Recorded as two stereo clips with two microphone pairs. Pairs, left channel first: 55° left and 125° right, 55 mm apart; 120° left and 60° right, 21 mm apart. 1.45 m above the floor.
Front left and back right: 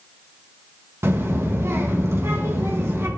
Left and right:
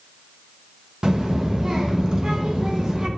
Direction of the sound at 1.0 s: 105° right.